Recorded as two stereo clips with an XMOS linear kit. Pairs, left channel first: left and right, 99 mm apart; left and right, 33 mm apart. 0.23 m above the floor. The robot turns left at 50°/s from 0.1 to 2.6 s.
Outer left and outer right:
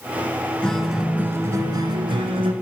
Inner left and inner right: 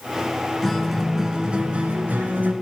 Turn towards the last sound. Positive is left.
turn(degrees=-90)